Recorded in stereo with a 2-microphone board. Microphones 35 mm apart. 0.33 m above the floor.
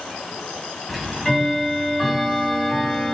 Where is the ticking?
Centre (ahead or behind), 1.8 m.